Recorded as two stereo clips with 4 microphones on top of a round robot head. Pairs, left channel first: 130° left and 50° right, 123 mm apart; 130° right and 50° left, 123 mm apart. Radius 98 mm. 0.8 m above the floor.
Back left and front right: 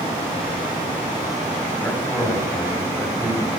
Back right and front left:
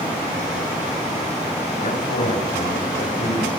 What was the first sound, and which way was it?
A man speaking, 150° right.